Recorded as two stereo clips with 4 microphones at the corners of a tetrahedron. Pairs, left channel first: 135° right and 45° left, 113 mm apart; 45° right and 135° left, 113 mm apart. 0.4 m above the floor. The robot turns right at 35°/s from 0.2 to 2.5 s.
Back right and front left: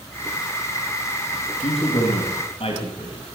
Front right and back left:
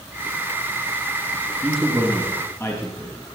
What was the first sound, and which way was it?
A man speaking, 140° right.